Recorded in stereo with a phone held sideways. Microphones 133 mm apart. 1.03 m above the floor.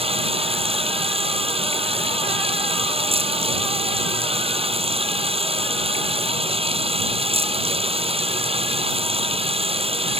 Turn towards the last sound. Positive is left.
turn(degrees=-45)  # may be behind; listen again after turning